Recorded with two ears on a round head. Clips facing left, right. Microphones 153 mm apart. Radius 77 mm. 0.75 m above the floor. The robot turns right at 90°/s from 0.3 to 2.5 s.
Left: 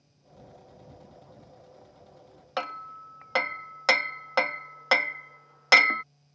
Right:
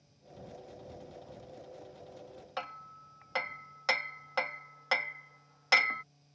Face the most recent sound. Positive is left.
turn(degrees=65)  # may be behind; listen again after turning